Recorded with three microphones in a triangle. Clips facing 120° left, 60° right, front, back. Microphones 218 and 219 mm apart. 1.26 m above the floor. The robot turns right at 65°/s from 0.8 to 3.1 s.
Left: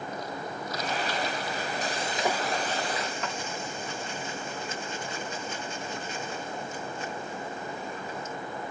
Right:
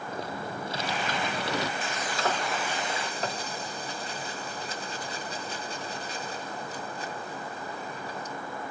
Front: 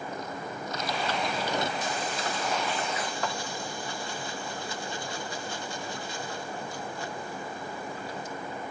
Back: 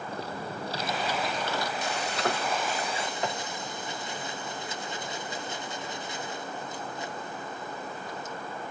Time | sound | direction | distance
0.1 | typing on a keyboard | 120° right | ?
1.8 | frying | 165° left | ?